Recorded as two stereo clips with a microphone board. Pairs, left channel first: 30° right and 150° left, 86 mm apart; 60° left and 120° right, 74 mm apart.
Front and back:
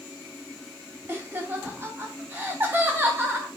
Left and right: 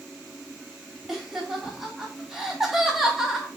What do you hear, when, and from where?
1.1 s laughter: 160° left, 0.7 m